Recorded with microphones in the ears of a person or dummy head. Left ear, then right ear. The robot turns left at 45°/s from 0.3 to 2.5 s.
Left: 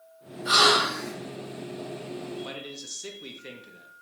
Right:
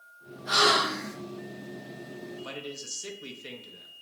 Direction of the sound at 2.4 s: Centre (ahead or behind).